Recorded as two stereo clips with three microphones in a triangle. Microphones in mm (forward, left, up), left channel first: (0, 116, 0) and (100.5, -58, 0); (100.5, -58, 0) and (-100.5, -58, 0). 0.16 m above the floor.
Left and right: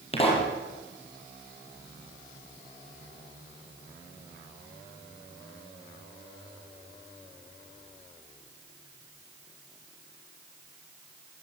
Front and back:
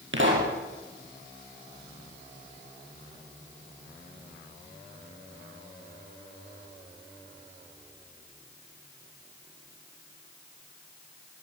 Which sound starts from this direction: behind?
A pop, at 0.1 s.